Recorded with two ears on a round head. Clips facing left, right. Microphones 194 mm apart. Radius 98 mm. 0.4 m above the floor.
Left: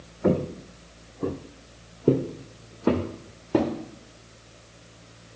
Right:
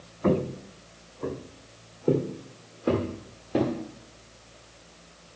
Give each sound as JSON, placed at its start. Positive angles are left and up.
{"t": 0.2, "sound": "footsteps", "side_deg": 10, "distance_m": 1.0}